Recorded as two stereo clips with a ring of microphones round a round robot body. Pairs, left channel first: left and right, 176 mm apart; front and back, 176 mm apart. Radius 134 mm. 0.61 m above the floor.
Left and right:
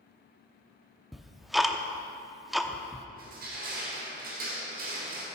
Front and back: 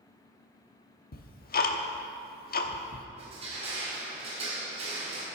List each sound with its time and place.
1.1 s ticking: straight ahead, 0.9 m
3.2 s crushing: 125° right, 2 m